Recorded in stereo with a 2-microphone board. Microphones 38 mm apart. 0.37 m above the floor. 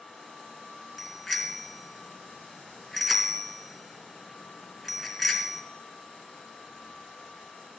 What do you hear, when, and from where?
1.0 s a bicycle bell: 5° right (ahead or behind), 3 m